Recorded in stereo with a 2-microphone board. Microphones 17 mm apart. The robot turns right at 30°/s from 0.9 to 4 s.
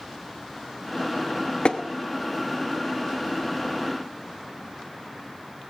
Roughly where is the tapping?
Left.